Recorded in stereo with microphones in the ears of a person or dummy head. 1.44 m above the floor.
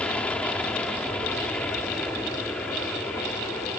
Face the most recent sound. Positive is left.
turn(degrees=5)  # may be behind; listen again after turning